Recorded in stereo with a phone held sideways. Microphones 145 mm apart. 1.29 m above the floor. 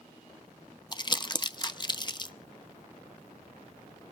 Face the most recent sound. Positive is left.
turn(degrees=30)  # may be behind; listen again after turning